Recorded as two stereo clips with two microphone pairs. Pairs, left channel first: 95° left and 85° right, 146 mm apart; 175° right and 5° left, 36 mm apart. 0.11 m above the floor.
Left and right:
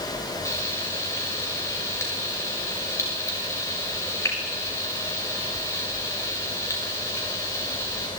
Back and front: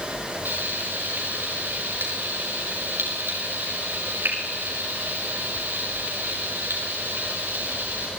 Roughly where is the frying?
Ahead left.